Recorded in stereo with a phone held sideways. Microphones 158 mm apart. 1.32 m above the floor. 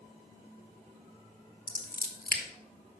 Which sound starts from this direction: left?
Scissors, at 1.7 s.